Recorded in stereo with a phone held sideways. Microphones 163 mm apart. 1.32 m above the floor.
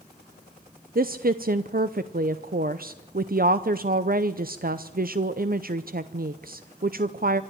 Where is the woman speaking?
60° right (ahead or behind), 0.6 m.